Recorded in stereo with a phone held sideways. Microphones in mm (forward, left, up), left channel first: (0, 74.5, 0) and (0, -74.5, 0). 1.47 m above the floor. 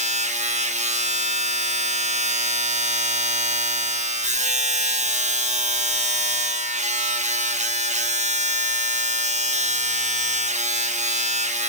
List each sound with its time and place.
0.0 s a machine running: 50° right (ahead or behind), 1.2 m